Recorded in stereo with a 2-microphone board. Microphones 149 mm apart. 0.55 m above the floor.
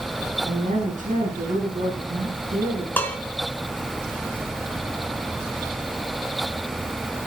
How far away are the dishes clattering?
About 4.5 m.